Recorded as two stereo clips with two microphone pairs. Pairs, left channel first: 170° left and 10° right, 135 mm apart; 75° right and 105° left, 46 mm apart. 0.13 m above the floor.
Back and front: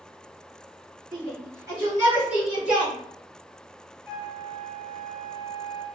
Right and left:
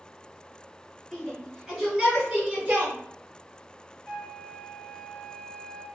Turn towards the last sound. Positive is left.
turn(degrees=160)